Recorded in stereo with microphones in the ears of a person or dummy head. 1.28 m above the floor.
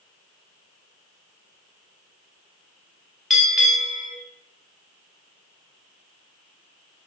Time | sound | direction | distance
3.3 | a bell | centre (ahead or behind) | 1.4 m